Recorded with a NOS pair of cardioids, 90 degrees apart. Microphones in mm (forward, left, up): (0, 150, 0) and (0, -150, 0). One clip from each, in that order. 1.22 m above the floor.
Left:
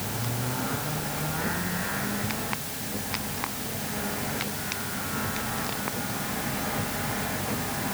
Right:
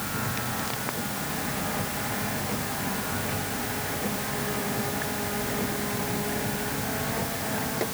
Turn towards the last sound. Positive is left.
No sound to turn to.